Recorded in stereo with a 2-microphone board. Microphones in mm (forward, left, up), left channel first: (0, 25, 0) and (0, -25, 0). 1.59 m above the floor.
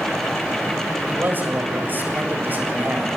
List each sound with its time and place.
1.1 s a man speaking: 40° right (ahead or behind), 7.5 m